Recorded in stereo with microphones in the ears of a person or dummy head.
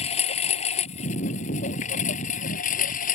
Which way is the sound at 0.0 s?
40° left (ahead or behind).